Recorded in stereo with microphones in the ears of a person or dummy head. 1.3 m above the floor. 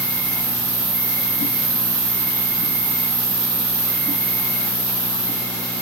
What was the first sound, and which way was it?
An insect, 5° left (ahead or behind).